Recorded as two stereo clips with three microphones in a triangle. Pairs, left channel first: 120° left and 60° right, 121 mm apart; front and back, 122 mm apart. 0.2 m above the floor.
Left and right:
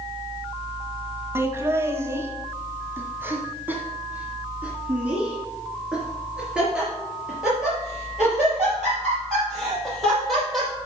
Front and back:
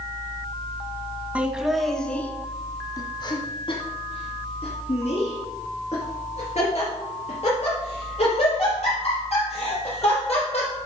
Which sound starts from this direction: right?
Laughter, at 1.4 s.